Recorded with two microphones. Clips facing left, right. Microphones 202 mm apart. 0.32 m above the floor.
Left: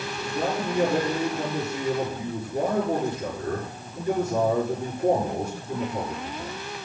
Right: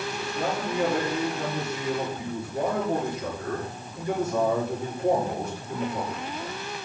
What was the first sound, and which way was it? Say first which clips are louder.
A man speaking: left 3 dB; 40° left (ahead or behind).